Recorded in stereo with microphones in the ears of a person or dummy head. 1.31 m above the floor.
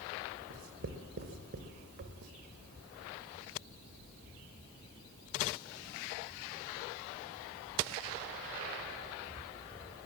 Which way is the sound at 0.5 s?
40° right (ahead or behind).